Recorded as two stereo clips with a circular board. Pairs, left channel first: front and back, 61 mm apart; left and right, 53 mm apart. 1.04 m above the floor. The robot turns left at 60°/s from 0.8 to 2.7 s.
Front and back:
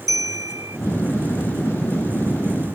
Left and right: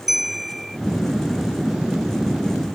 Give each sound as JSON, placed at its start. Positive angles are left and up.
{"t": 0.1, "sound": "a bell", "azimuth_deg": -175}